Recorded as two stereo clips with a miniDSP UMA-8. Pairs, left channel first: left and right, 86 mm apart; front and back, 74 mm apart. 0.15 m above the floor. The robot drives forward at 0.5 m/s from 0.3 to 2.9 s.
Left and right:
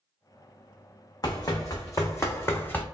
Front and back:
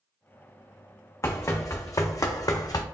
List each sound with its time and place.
1.2 s running footsteps: 50° left, 0.7 m; by 2.8 s 25° left, 0.5 m